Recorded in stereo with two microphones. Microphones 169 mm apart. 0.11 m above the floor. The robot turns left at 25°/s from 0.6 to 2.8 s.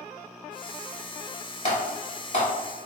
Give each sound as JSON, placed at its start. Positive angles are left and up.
{"t": 1.6, "sound": "typing on a keyboard", "side_deg": 40, "distance_m": 1.8}